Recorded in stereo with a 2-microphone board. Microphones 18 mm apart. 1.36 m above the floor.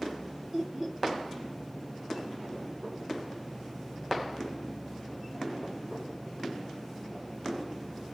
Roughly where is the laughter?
Right.